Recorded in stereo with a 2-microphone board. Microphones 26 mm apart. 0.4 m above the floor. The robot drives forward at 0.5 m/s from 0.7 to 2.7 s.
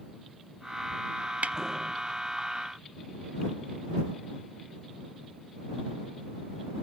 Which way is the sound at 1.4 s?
80° right.